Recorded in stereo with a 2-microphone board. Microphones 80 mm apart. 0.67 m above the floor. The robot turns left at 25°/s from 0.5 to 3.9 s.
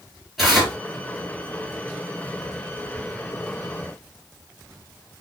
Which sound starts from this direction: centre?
Tearing paper, at 0.4 s.